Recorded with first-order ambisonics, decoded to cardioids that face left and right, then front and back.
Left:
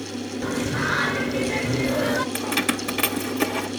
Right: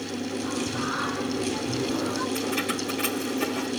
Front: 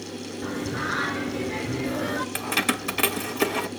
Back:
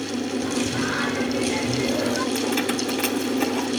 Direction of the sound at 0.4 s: 80° left.